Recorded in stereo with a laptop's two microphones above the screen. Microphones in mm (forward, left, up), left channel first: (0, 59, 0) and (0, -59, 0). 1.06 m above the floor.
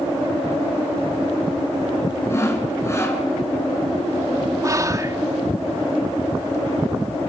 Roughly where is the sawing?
Left.